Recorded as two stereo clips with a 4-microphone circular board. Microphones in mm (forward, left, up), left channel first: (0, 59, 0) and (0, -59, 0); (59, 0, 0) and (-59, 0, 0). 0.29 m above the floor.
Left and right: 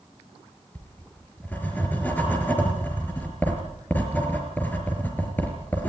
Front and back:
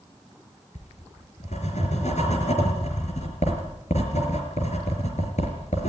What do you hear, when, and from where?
0.8 s writing: 15° left, 4.5 m